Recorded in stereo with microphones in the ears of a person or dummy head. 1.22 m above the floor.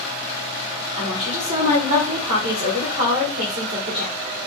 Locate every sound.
1.0 s a woman speaking: 40° right (ahead or behind), 1.5 m